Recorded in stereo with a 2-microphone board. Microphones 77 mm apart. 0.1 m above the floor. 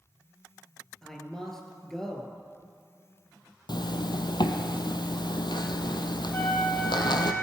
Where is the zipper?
70° left (ahead or behind), 0.8 m.